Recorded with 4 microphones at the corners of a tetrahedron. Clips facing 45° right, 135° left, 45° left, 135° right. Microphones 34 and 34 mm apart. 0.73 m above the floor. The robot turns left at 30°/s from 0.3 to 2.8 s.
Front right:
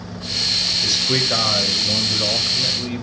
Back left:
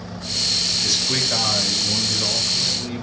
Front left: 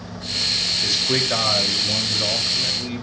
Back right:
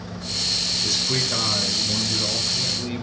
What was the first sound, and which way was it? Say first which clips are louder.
A man speaking: front right 2 dB, front left 3 dB; 20° left.